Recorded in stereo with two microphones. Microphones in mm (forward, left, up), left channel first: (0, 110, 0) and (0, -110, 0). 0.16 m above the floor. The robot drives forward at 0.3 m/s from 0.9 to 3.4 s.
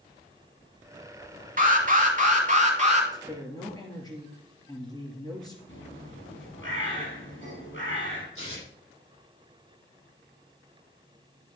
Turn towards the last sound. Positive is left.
turn(degrees=75)  # may be behind; listen again after turning